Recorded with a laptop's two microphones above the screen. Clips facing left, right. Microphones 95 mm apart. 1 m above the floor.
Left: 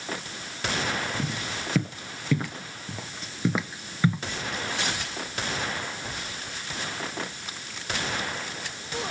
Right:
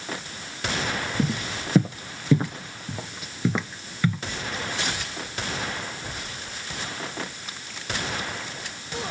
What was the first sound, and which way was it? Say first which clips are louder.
Footsteps: right 5 dB; 40° right (ahead or behind).